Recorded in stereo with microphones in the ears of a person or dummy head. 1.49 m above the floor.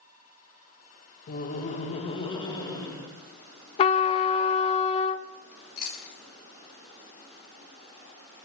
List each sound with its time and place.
1.3 s laughter: 50° left (ahead or behind), 1.2 m; by 3.1 s 20° left (ahead or behind), 2 m
3.8 s a trumpet: 35° left (ahead or behind), 0.5 m
5.5 s chewing: 40° left (ahead or behind), 3.5 m